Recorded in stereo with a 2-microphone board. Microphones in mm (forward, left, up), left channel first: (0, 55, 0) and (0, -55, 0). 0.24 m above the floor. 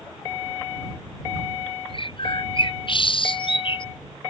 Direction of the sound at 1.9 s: 50° left (ahead or behind).